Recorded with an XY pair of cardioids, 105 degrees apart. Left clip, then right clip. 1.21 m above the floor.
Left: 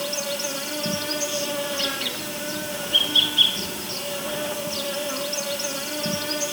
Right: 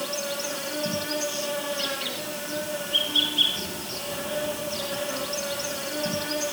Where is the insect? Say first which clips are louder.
Left 3 dB; 30° left, 9 m.